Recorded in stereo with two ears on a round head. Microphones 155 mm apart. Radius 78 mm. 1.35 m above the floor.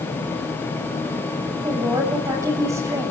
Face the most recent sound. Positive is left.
turn(degrees=-20)  # may be behind; listen again after turning